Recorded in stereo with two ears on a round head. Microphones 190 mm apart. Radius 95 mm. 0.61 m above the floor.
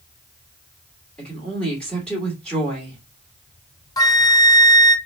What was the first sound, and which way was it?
A woman speaking, 5° left (ahead or behind).